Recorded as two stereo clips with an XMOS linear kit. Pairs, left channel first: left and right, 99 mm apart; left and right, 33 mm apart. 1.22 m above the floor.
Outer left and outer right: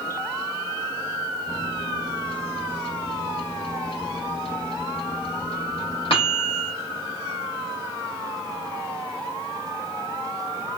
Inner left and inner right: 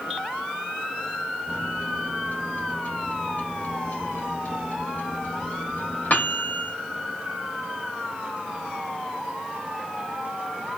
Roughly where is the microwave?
Left.